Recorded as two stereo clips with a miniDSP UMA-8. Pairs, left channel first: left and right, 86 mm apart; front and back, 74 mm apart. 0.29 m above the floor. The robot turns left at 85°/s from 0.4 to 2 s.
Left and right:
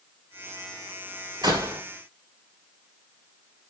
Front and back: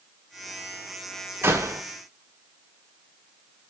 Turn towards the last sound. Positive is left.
turn(degrees=-170)